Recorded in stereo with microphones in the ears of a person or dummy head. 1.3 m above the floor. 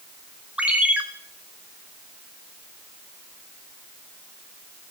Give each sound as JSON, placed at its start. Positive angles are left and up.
{"t": 0.6, "sound": "a ringtone", "side_deg": -5, "distance_m": 1.1}